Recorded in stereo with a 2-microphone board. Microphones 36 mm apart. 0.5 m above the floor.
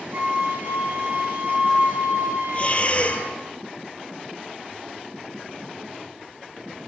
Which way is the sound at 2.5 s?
35° left (ahead or behind).